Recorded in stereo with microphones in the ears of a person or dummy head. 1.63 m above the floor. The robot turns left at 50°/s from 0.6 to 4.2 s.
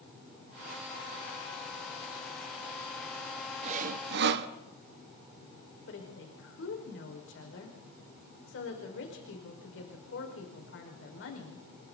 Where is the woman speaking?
55° left (ahead or behind), 5.5 m.